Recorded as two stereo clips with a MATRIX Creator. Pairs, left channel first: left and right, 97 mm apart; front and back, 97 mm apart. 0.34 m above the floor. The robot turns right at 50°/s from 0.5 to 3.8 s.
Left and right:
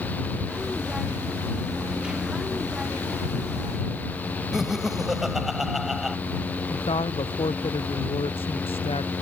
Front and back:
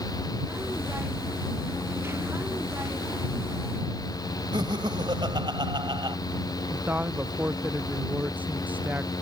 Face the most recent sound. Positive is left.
turn(degrees=105)